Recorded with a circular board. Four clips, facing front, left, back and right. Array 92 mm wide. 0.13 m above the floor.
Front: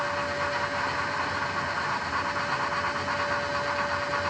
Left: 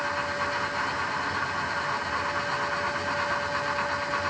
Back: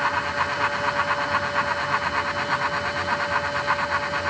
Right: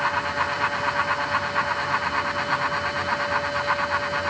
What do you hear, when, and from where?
Only background noise.